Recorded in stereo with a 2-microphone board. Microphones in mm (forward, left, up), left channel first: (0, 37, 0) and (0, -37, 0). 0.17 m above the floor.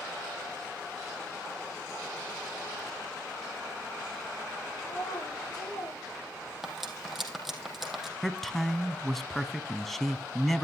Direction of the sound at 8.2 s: Centre (ahead or behind).